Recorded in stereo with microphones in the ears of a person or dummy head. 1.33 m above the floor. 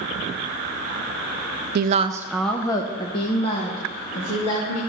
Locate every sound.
1.8 s a woman speaking: 55° right (ahead or behind), 0.5 m; by 4.8 s 40° left (ahead or behind), 2.5 m